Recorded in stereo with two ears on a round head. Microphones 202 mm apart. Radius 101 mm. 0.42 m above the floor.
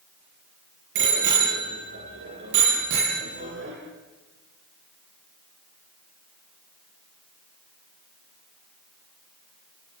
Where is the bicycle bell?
55° right (ahead or behind), 7 m.